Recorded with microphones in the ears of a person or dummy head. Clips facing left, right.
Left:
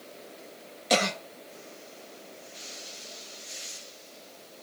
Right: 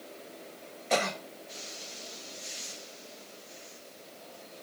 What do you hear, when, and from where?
0.9 s a cough: 50° left (ahead or behind), 1.7 m